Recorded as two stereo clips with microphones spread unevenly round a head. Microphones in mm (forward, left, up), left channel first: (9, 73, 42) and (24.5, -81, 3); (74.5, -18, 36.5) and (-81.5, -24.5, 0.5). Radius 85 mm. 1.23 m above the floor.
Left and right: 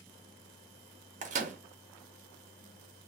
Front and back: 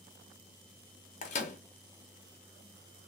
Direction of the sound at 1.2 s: 40° right.